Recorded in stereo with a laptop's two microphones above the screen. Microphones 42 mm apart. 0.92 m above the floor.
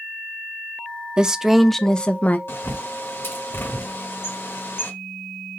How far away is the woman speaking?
About 0.7 m.